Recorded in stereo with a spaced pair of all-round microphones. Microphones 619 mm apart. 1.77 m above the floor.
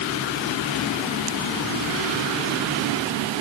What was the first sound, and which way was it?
Only background noise.